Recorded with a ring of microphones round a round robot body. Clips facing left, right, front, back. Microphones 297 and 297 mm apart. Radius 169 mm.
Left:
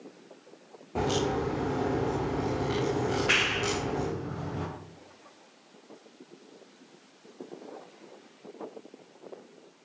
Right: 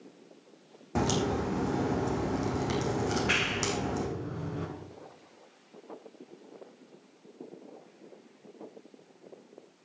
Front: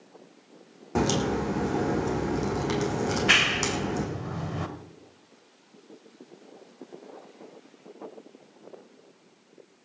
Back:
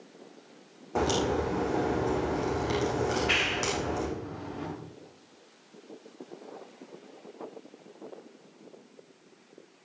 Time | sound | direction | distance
0.9 | a crack | 50° right | 6 m
3.0 | a clap | straight ahead | 2 m